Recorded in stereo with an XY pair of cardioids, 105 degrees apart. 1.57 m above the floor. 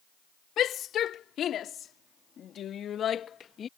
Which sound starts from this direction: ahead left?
A shout, at 0.6 s.